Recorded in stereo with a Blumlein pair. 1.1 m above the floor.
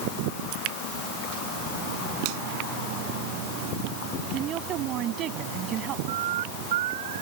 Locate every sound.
0.5 s dripping: 40° right
2.2 s a finger snap: 45° right
4.3 s a woman speaking: 30° right
6.1 s a bird: 55° right